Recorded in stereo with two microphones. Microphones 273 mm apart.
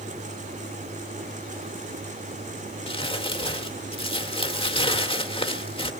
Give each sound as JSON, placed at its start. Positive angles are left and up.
{"t": 2.9, "sound": "crumpling", "side_deg": 20, "distance_m": 1.3}